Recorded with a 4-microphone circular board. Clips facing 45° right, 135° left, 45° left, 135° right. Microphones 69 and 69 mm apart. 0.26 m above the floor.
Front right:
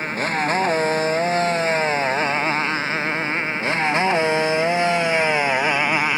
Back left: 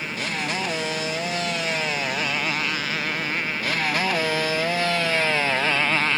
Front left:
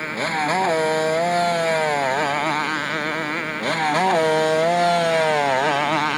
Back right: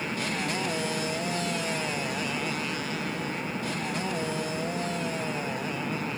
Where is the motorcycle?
10° left; by 6.2 s 30° left.